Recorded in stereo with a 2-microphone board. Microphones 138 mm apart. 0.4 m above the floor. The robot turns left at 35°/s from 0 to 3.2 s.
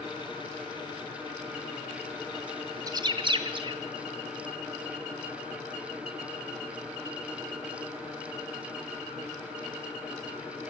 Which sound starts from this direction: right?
A bird, at 2.9 s.